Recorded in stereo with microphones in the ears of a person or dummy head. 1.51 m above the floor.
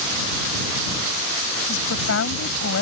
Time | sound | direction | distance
1.7 | a woman speaking | 70° left (ahead or behind) | ?